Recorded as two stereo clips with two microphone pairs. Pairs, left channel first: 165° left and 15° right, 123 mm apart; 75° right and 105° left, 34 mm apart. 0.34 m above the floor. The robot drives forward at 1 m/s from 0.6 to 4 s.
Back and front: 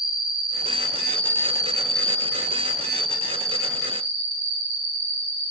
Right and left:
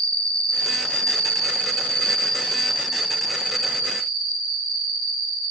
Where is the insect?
35° right, 1.6 m; by 5.5 s 165° right, 2.5 m.